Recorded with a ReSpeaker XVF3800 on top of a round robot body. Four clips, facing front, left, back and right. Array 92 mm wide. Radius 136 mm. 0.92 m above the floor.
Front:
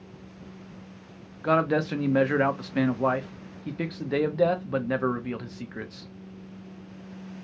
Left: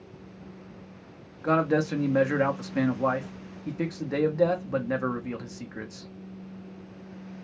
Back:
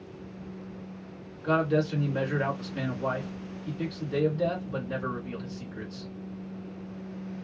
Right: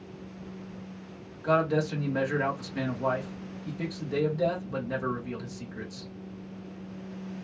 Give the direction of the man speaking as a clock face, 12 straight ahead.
11 o'clock.